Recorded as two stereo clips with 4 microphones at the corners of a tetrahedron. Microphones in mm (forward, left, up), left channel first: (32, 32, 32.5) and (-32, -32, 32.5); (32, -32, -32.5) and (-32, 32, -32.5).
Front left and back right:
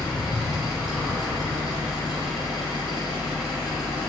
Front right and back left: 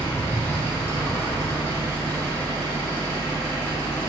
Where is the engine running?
150° left, 1.2 m.